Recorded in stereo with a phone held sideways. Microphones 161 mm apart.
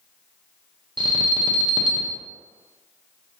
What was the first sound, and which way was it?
An alarm, 30° right (ahead or behind).